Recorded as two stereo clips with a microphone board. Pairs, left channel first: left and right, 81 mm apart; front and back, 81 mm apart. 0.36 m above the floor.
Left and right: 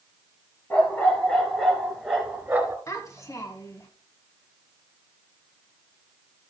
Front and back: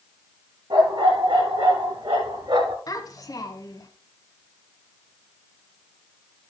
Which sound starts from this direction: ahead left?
A child speaking, at 2.9 s.